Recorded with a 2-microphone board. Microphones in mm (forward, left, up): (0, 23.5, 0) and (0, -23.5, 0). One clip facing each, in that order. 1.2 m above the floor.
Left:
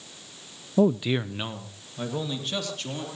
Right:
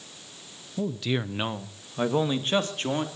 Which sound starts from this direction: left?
A man speaking, at 0.8 s.